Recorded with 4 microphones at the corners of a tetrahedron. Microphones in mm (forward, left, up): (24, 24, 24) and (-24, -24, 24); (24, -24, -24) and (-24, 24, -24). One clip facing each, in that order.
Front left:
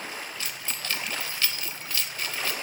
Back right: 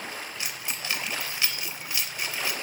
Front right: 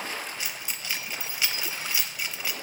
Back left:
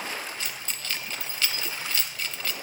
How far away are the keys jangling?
About 0.6 m.